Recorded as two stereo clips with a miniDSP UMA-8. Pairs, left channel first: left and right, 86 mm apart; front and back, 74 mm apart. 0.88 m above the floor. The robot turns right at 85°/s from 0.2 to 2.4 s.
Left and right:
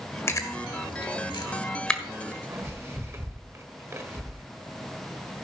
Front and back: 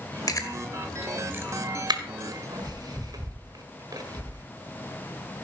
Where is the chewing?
35° left, 1.3 m; by 4.4 s 145° right, 1.3 m.